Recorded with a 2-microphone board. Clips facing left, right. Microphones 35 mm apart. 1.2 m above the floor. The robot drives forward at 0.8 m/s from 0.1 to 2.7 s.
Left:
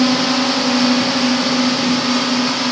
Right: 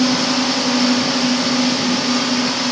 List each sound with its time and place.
0.0 s a drone: 25° left (ahead or behind); by 2.7 s 20° left (ahead or behind)